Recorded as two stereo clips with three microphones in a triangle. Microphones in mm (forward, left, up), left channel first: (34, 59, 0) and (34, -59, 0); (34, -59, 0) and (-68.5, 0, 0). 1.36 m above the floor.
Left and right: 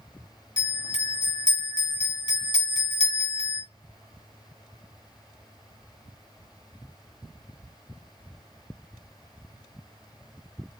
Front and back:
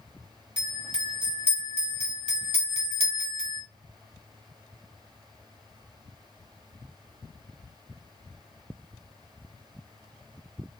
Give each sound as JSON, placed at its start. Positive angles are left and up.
{"t": 0.6, "sound": "a bell", "azimuth_deg": 125, "distance_m": 1.4}